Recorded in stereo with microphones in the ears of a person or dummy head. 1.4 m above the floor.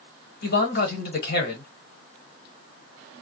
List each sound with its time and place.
0.4 s a man speaking: 55° left (ahead or behind), 1.2 m